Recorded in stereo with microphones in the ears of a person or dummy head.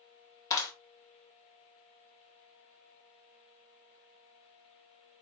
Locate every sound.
0.5 s a clap: 25° left (ahead or behind), 2.0 m